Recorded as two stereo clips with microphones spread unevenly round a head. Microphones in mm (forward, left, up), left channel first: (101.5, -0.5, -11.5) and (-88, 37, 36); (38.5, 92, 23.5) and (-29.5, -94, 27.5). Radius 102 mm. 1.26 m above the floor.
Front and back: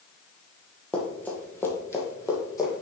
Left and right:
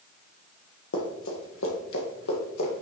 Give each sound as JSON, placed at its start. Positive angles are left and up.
{"t": 0.9, "sound": "running footsteps", "azimuth_deg": 85, "distance_m": 2.0}